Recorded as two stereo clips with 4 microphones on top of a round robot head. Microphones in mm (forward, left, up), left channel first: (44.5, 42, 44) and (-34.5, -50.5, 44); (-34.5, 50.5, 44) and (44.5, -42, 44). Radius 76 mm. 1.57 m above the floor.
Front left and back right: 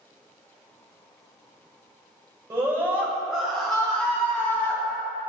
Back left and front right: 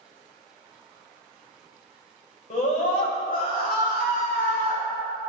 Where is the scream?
165° left, 1.6 m; by 4.8 s 120° left, 2 m.